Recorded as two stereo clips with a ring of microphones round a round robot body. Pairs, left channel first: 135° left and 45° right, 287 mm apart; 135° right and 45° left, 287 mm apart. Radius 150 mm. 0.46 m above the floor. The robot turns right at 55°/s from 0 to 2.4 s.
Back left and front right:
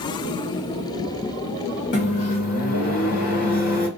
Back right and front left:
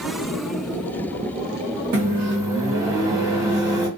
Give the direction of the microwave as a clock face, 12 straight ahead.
9 o'clock.